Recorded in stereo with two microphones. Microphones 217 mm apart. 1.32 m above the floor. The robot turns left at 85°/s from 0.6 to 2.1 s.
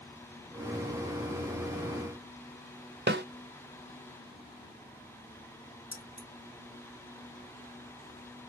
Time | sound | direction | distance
3.1 | a snare drum | 55° right (ahead or behind) | 0.7 m
5.9 | keys jangling | 45° left (ahead or behind) | 1.5 m